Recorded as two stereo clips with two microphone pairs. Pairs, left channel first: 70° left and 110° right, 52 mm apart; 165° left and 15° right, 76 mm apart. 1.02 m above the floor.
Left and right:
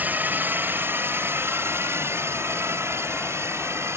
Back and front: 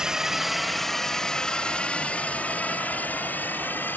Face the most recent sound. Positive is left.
turn(degrees=-135)